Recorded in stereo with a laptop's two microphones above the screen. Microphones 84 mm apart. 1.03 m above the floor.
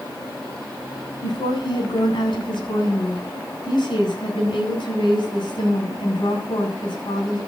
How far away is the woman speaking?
About 7.5 m.